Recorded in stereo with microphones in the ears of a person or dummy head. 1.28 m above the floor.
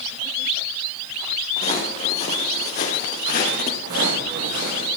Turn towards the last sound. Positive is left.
turn(degrees=-60)  # may be behind; listen again after turning